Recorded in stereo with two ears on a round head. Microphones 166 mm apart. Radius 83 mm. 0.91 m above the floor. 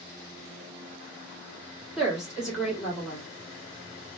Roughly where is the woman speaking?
Centre.